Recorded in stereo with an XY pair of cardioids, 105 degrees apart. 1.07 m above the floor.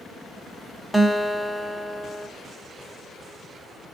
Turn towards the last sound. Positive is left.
turn(degrees=-15)